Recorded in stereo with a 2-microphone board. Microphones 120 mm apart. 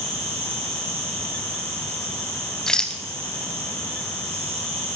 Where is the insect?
55° right (ahead or behind), 2.5 m.